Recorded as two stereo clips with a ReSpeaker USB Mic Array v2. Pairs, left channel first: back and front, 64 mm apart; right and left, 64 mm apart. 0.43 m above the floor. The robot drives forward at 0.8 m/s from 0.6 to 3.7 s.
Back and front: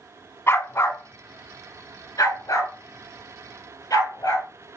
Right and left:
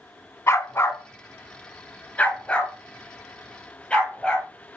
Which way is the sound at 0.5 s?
130° right.